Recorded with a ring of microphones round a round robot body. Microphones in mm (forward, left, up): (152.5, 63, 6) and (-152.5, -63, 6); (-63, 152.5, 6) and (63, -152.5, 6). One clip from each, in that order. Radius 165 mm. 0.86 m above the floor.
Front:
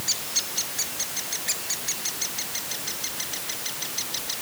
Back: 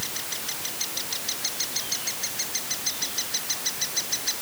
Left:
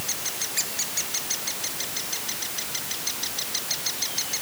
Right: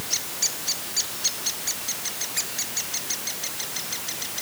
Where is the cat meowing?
I don't hear a cat meowing.